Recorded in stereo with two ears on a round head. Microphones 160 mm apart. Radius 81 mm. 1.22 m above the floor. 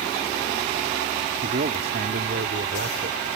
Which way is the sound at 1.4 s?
55° right (ahead or behind).